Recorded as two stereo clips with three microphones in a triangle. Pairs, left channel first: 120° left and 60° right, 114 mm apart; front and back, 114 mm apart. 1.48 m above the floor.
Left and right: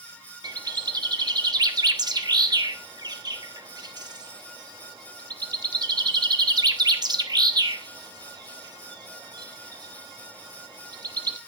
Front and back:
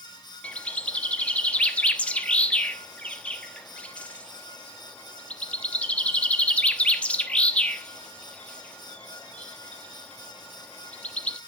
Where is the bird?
70° right, 1.0 m.